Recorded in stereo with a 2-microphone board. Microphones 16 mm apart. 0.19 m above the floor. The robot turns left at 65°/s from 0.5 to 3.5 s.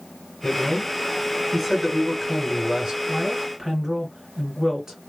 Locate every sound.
0.4 s a man speaking: 70° left, 2.5 m; by 3.0 s 90° right, 2.5 m
3.1 s a woman speaking: 50° right (ahead or behind), 2 m; by 5.0 s 40° right (ahead or behind), 2 m